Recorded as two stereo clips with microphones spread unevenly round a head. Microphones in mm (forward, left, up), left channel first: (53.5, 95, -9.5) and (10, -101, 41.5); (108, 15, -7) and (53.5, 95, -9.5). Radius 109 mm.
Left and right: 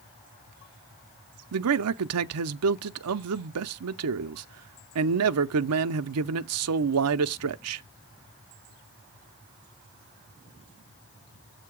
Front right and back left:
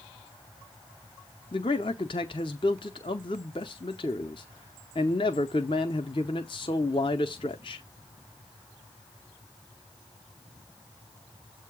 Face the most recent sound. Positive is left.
turn(degrees=-110)